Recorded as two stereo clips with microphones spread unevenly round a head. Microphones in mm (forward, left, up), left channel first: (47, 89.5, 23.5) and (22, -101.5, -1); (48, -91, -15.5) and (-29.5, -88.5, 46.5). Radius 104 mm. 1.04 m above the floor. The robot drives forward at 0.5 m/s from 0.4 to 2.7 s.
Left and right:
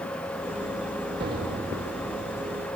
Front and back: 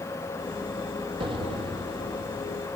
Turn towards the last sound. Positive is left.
turn(degrees=-170)